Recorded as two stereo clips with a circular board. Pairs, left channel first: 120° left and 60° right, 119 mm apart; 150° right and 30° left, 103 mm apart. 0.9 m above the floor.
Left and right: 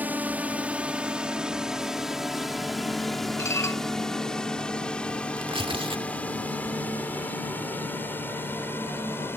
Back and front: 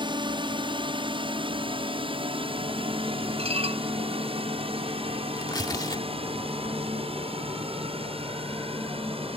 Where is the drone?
15° left; by 9.4 s 50° left.